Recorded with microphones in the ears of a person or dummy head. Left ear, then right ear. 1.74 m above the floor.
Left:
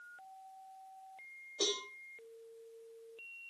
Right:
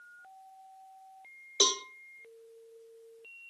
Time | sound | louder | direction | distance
1.6 | a cowbell | right 8 dB | 75° right (ahead or behind) | 1.1 m